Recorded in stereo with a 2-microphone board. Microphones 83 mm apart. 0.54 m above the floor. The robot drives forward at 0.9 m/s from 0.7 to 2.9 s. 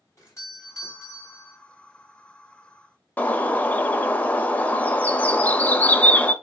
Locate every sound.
0.2 s a doorbell: 35° left (ahead or behind), 1.8 m; by 1.6 s 30° left (ahead or behind), 2 m
3.2 s a bird: 20° left (ahead or behind), 0.5 m